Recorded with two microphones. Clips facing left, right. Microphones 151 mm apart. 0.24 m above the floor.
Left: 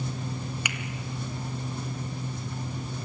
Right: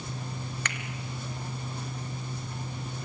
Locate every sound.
0.7 s a finger snap: 10° left (ahead or behind), 1.4 m